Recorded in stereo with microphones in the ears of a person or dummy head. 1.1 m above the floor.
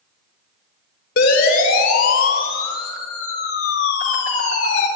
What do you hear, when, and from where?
1.2 s a siren: 75° left (ahead or behind), 4.5 m; by 4.9 s 80° left, 6.5 m